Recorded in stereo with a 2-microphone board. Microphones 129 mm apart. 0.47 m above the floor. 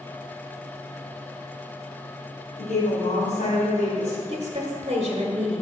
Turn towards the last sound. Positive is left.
turn(degrees=-45)  # may be behind; listen again after turning